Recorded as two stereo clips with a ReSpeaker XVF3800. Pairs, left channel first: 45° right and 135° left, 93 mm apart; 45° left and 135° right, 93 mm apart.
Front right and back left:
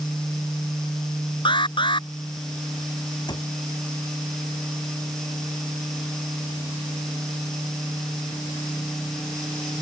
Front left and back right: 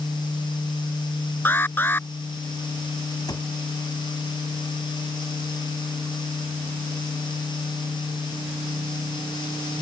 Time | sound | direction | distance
1.4 | an alarm | 20° right | ?
3.3 | a cupboard door | 5° right | ?